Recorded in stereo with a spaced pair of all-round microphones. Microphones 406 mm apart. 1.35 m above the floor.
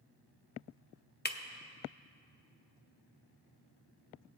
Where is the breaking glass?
25° left (ahead or behind), 0.6 m.